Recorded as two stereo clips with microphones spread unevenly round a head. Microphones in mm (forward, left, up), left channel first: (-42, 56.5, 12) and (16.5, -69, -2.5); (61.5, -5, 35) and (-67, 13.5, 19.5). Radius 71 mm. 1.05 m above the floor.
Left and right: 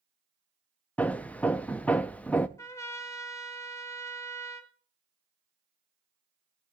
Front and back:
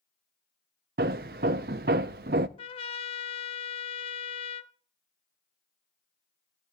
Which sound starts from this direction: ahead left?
A trumpet, at 2.6 s.